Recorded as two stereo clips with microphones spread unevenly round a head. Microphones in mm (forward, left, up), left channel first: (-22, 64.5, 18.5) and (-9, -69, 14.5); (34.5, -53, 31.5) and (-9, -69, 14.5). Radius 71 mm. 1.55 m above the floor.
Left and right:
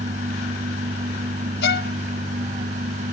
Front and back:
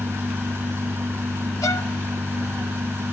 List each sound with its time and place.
0.0 s a machine running: 120° right
1.6 s a violin: 80° left